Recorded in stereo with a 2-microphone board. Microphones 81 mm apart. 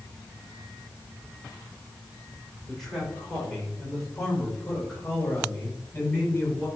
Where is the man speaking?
5° left (ahead or behind), 7 m; by 6.7 s 25° left (ahead or behind), 7.5 m.